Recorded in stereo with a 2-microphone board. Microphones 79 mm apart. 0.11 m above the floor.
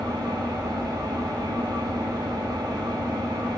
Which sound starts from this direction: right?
An engine running, at 0.0 s.